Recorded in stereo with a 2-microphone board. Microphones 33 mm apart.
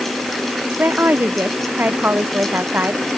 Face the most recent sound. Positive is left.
turn(degrees=-80)